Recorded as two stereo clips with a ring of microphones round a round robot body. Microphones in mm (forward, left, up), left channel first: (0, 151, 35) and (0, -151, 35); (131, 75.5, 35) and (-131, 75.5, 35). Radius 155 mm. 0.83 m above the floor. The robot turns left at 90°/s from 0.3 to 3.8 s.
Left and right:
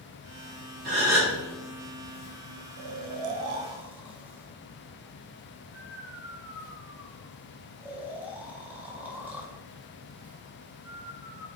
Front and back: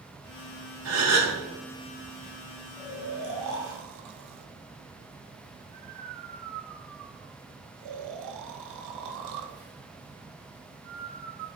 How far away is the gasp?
About 1.5 m.